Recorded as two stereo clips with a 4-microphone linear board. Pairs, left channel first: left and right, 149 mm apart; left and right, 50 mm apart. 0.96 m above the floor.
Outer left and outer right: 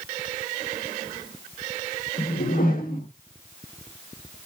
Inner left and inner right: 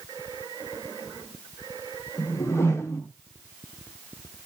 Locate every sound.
2.2 s a whoosh: 70° left (ahead or behind), 1.3 m